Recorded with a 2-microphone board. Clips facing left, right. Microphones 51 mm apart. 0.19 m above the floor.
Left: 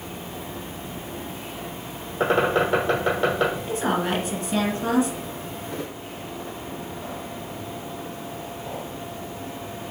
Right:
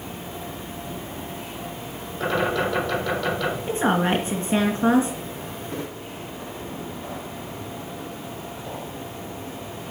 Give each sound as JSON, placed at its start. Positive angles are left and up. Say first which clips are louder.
{"t": 2.2, "sound": "a bird", "louder": "left 3 dB", "side_deg": 35, "distance_m": 7.0}
{"t": 3.7, "sound": "a woman speaking", "louder": "right 3 dB", "side_deg": -30, "distance_m": 2.5}